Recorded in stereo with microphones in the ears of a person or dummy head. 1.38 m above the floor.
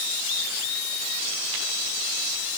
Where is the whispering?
No whispering in this recording.